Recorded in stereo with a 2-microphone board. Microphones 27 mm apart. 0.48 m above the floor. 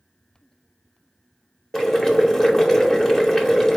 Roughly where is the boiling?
Centre.